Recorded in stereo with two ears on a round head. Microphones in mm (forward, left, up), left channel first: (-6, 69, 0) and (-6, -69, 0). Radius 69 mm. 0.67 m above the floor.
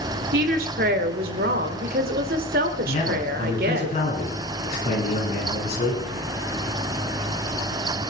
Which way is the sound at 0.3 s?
65° right (ahead or behind).